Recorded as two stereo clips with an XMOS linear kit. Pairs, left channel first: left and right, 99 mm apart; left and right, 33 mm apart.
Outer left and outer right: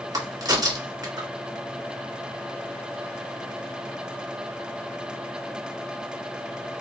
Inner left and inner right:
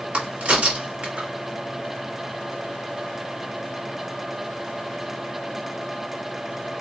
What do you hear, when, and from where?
0.1 s a crack: 40° right (ahead or behind), 1.4 m